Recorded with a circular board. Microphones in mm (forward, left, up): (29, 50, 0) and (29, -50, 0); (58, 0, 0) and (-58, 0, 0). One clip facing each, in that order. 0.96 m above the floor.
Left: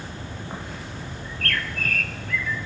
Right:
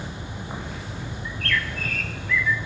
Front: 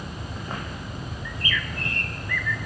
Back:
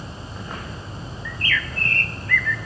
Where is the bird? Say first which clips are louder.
Right 2 dB, back 4 dB; 70° left, 0.6 m.